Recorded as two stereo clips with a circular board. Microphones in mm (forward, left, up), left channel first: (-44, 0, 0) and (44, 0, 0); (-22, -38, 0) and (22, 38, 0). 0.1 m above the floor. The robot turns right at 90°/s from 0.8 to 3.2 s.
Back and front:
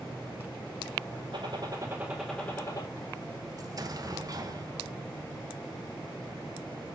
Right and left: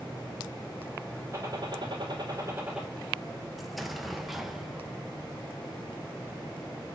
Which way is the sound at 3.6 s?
30° right.